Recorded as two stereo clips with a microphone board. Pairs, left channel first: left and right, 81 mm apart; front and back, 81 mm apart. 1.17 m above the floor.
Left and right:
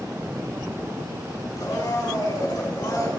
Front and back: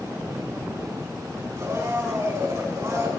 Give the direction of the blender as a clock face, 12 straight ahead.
8 o'clock.